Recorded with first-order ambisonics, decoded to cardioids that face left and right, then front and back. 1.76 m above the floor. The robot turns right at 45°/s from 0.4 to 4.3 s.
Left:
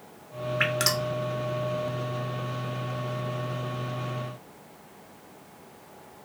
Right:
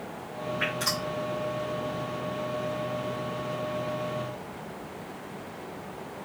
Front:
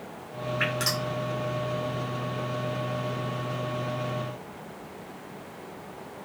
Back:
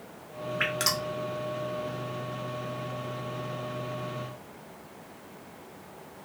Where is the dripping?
95° left, 0.6 m; by 1.1 s 115° left, 0.6 m.